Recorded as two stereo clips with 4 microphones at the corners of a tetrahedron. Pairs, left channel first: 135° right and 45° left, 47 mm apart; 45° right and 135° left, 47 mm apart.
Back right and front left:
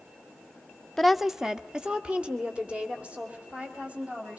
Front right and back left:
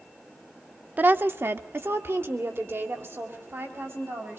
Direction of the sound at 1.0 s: 145° left.